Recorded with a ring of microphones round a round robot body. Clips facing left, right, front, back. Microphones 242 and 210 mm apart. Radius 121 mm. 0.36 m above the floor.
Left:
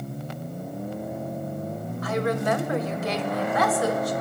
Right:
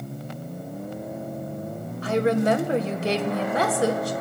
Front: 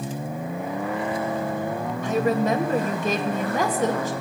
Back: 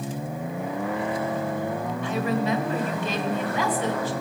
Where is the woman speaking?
35° right, 1.8 m.